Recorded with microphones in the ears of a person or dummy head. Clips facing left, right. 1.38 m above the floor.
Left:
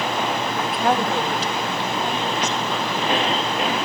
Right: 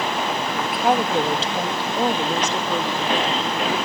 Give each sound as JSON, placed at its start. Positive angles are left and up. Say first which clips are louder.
{"t": 0.5, "sound": "a woman speaking", "louder": "right 2 dB", "side_deg": 5, "distance_m": 1.8}